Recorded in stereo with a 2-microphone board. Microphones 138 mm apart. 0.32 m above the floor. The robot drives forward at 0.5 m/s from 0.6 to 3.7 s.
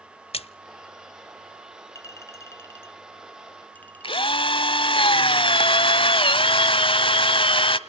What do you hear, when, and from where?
0.3 s a splash: 45° left (ahead or behind), 0.8 m
1.9 s a clink: 25° left (ahead or behind), 0.7 m; by 4.6 s 15° left (ahead or behind), 1.3 m
4.0 s a drill: 40° left (ahead or behind), 1.0 m